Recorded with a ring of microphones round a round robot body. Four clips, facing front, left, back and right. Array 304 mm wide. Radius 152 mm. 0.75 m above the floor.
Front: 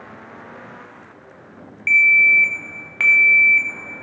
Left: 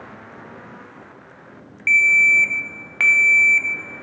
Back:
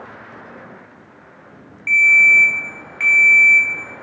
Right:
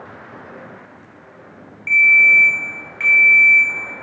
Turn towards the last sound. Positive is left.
turn(degrees=55)